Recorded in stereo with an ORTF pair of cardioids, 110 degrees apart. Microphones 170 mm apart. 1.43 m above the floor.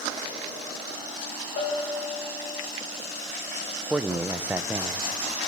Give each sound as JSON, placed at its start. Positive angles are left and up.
{"t": 1.6, "sound": "a bell", "azimuth_deg": 65, "distance_m": 9.0}
{"t": 3.9, "sound": "a man speaking", "azimuth_deg": -10, "distance_m": 0.7}